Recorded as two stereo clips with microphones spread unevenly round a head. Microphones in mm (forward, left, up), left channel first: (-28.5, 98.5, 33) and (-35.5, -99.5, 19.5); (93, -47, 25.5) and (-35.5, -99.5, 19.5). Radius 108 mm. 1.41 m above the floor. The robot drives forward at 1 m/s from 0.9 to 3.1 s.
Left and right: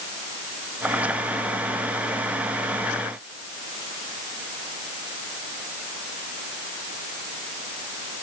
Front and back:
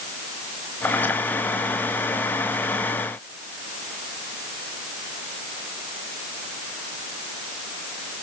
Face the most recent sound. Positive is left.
No sound to turn to.